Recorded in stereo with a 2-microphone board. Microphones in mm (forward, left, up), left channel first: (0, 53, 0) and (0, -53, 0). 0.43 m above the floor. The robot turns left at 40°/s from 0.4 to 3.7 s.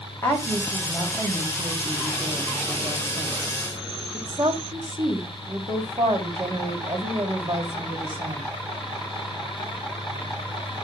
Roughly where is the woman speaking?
Ahead.